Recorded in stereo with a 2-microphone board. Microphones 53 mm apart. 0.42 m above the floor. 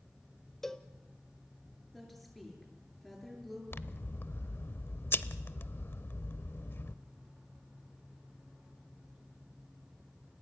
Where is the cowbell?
10° left (ahead or behind), 1.2 m.